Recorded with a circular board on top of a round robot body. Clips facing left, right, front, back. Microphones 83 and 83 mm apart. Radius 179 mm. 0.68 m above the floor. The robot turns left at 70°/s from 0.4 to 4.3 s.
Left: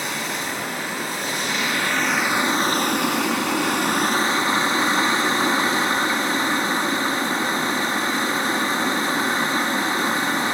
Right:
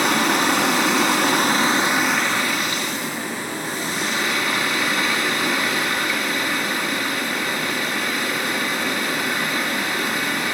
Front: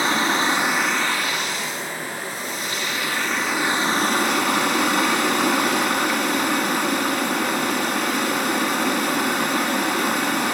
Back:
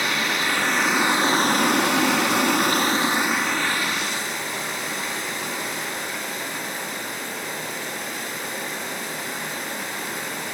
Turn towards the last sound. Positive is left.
turn(degrees=30)